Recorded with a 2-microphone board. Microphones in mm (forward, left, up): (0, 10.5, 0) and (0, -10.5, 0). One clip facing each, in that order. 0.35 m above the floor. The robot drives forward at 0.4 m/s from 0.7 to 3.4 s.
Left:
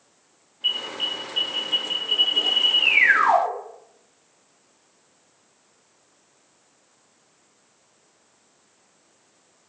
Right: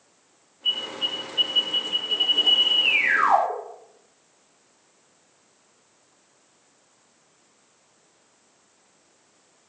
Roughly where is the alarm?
Left.